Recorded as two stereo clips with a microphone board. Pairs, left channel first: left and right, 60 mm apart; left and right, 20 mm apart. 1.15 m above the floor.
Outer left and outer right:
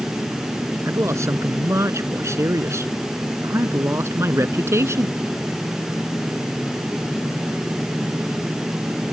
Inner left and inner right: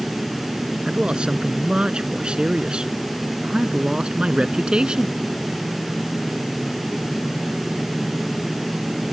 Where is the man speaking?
50° right (ahead or behind).